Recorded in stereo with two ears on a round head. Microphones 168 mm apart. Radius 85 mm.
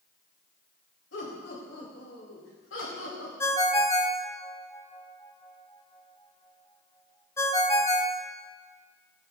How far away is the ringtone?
About 0.9 m.